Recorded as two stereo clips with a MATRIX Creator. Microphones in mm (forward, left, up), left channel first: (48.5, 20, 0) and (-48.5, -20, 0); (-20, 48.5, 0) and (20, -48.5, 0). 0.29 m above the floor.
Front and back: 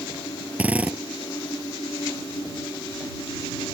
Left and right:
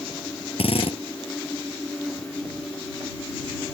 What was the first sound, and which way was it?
A drill, 130° left.